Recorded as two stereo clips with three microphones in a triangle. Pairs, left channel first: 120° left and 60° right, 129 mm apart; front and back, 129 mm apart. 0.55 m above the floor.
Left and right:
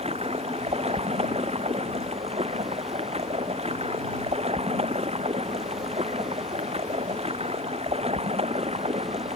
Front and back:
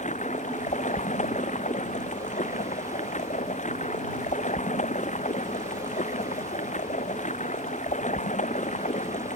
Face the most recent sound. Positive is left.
turn(degrees=-20)